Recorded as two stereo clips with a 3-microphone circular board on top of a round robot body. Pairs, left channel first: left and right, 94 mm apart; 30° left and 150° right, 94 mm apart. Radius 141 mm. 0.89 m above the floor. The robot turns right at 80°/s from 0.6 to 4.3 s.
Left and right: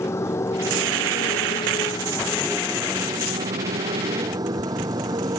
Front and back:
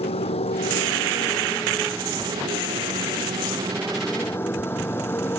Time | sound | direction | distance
0.0 | a motorcycle | 25° left | ?